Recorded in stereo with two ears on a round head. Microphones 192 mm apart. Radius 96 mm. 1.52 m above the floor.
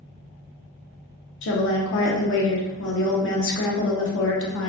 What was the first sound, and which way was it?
A woman speaking, 65° left (ahead or behind).